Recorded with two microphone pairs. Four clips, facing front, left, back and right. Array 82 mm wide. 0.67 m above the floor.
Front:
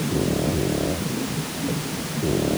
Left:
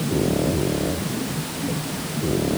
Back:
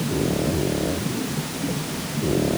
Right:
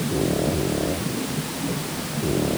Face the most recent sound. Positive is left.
No sound to turn to.